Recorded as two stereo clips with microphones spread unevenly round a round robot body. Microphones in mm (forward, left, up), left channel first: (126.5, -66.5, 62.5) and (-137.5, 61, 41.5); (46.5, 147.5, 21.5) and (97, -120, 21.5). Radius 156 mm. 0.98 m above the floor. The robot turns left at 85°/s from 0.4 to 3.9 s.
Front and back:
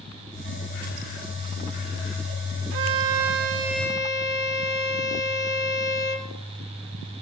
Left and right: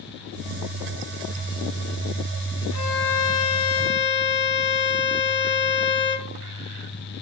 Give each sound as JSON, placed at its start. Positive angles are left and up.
{"t": 2.7, "sound": "a violin", "azimuth_deg": 155, "distance_m": 1.3}